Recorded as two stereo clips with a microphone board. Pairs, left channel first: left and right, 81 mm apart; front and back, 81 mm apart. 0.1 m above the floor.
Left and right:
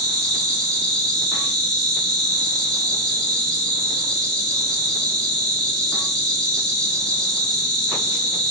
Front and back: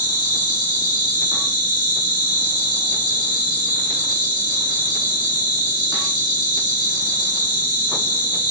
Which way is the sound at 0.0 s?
5° left.